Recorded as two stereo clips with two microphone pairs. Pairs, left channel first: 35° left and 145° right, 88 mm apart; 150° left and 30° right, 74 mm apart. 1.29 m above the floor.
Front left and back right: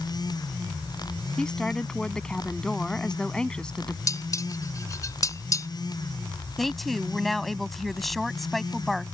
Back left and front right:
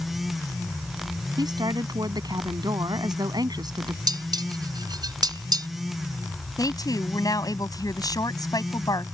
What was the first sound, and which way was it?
A woman speaking, 50° right.